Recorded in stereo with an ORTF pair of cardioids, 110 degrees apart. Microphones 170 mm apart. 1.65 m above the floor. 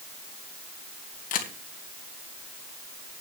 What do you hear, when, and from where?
1.3 s a camera shutter: 50° left, 1.9 m